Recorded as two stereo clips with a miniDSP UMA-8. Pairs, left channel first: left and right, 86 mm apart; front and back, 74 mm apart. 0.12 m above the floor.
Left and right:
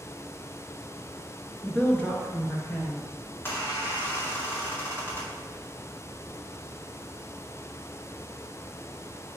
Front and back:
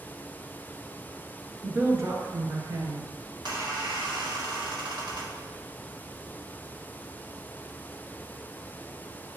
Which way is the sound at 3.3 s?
155° left.